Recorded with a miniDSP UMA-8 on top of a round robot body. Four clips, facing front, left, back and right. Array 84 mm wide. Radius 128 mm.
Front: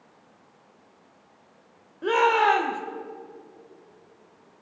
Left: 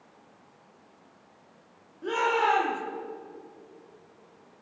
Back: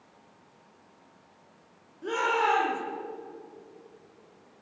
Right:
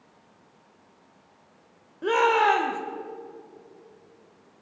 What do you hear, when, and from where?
2.0 s a shout: 45° right, 1.5 m